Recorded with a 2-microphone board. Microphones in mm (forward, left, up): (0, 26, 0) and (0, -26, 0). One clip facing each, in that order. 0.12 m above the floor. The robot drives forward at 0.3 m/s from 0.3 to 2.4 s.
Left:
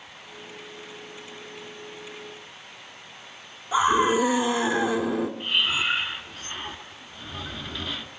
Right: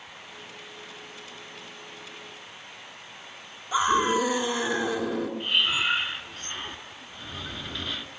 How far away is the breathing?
About 1.1 m.